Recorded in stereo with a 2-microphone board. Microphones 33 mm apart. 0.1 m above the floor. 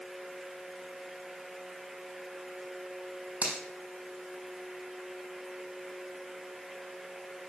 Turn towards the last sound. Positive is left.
turn(degrees=-40)  # may be behind; listen again after turning